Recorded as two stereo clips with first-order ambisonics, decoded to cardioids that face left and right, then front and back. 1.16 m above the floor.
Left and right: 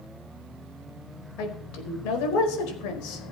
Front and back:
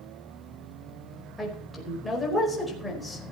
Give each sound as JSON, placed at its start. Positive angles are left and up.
{"t": 1.4, "sound": "a woman speaking", "azimuth_deg": 85, "distance_m": 4.5}